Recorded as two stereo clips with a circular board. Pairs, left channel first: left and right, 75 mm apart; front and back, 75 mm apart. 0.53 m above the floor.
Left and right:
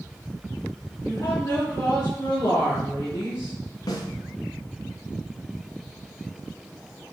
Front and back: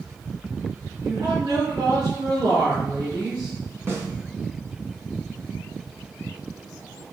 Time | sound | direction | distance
1.0 | a woman speaking | 150° left | 5.5 m
3.9 | a snare drum | 125° left | 2.5 m